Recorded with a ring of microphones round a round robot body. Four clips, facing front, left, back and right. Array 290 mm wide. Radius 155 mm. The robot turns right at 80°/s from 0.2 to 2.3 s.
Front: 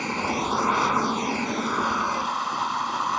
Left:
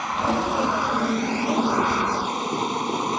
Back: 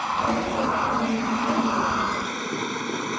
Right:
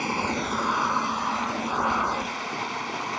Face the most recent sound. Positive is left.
turn(degrees=120)